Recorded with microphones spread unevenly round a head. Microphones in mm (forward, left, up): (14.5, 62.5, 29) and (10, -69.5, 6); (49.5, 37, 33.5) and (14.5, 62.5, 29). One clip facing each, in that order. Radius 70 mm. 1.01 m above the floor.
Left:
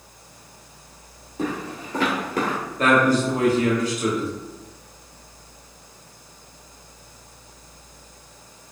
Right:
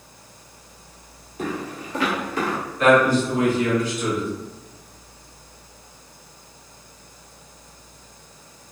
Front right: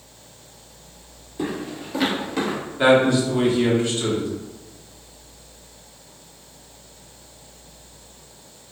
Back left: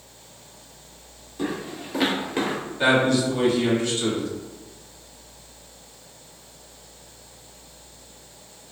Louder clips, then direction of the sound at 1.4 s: Left 1 dB, front right 1 dB; 35° left.